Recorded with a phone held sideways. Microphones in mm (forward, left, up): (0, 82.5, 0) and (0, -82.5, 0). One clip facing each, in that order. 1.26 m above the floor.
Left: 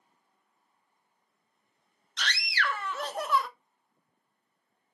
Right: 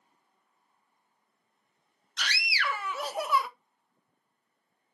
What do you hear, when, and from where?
2.2 s a scream: 5° right (ahead or behind), 0.6 m